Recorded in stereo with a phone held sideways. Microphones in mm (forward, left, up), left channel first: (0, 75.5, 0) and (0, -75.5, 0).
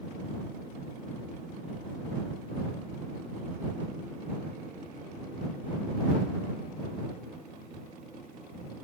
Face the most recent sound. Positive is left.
No sound to turn to.